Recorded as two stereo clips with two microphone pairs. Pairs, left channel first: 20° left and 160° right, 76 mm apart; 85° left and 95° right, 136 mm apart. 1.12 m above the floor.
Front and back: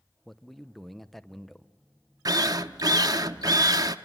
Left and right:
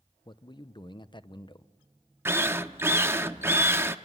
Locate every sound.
0.2 s a man speaking: 100° left, 0.8 m
2.2 s a drill: 165° right, 0.8 m